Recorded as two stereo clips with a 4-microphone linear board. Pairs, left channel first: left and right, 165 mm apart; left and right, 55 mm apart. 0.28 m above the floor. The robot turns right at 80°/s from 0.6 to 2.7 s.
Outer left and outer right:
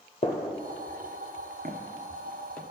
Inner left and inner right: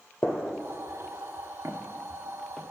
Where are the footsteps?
70° right (ahead or behind), 1.4 m; by 2.6 s 10° left (ahead or behind), 1.4 m.